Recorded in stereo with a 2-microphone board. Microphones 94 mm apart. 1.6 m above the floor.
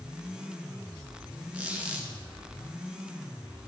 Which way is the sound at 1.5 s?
15° right (ahead or behind).